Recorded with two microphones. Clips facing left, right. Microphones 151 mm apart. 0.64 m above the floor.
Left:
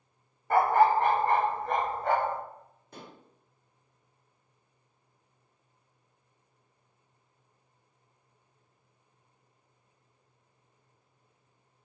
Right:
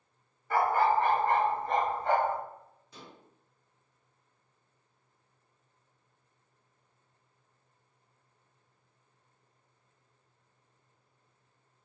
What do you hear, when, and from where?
0.5 s a dog barking: 55° left (ahead or behind), 0.7 m; by 2.4 s 80° left, 2.5 m
2.9 s dishes clattering: 55° left (ahead or behind), 0.5 m